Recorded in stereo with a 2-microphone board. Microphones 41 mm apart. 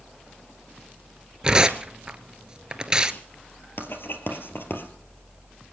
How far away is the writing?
About 2 m.